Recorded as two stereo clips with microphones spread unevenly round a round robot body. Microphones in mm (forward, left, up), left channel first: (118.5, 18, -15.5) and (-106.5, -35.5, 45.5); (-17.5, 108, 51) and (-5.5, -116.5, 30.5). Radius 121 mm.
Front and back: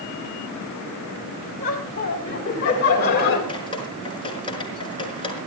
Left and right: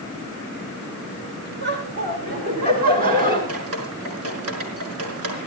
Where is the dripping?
60° right, 4.5 m.